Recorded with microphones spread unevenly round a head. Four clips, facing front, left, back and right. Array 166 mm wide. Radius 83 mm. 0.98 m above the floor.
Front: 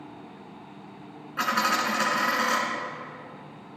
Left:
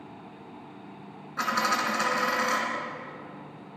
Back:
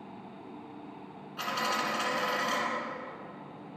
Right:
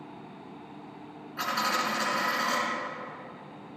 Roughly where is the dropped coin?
Ahead left.